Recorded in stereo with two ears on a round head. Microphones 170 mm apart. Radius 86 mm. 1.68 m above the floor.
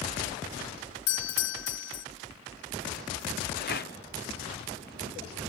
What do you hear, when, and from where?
1.1 s a doorbell: 65° left (ahead or behind)
3.6 s a rattle: 55° left (ahead or behind)